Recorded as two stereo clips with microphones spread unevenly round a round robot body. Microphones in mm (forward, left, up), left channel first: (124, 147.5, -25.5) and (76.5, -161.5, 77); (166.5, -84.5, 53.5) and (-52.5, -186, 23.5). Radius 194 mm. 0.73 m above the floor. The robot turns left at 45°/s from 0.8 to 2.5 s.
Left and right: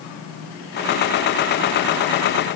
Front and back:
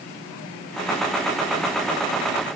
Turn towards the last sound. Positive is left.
No sound to turn to.